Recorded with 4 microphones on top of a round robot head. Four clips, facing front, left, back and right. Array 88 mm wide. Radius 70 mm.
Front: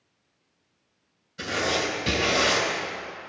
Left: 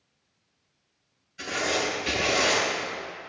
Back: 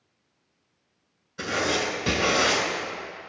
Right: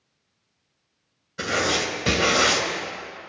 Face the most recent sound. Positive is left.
turn(degrees=-120)